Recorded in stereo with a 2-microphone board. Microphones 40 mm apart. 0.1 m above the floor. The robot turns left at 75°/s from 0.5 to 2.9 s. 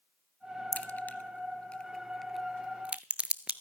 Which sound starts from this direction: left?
A crack, at 0.7 s.